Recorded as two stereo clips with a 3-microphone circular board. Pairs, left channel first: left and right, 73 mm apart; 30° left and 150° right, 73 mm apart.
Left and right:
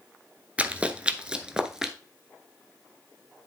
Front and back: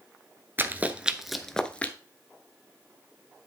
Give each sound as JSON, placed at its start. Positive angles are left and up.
{"t": 0.6, "sound": "running footsteps", "azimuth_deg": -140, "distance_m": 0.8}